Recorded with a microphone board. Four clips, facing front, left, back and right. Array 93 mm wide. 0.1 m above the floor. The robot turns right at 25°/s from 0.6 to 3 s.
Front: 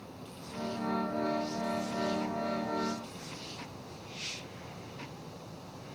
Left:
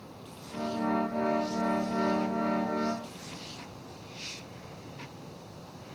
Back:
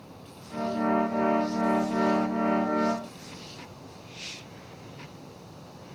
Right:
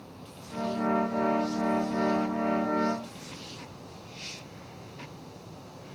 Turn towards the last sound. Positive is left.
No sound to turn to.